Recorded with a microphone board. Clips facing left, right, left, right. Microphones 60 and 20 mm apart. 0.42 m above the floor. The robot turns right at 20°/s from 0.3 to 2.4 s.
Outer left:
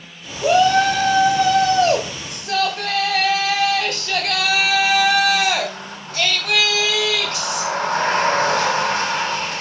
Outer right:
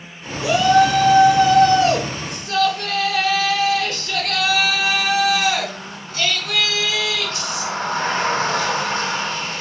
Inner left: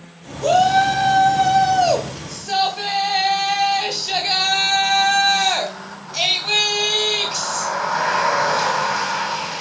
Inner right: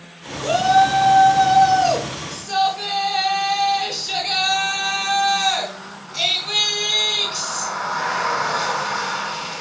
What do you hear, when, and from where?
0.4 s a shout: 50° left, 2.5 m; by 9.6 s 90° left, 2.5 m